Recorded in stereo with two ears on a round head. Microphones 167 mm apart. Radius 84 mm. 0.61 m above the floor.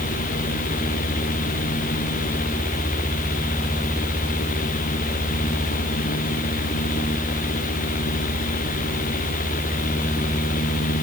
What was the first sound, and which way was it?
Only background noise.